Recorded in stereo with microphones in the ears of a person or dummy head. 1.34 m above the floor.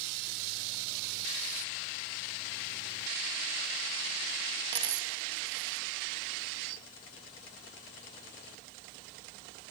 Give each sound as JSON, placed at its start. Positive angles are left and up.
{"t": 4.7, "sound": "a dropped coin", "side_deg": -30, "distance_m": 0.7}